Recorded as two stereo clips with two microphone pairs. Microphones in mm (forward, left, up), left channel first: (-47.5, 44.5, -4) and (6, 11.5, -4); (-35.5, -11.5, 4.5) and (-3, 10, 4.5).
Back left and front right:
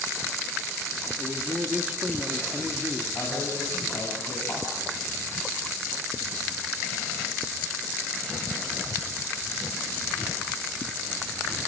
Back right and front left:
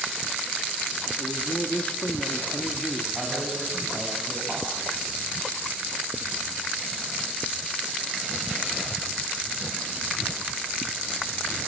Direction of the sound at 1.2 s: 100° right.